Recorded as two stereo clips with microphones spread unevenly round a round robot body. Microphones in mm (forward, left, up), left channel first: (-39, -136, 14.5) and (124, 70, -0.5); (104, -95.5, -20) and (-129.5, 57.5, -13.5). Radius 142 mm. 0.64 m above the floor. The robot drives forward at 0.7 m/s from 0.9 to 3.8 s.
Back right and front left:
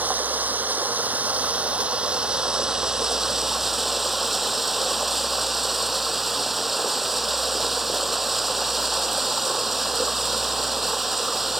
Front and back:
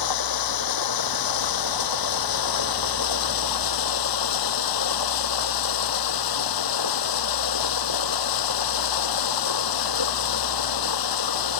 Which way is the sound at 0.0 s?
30° right.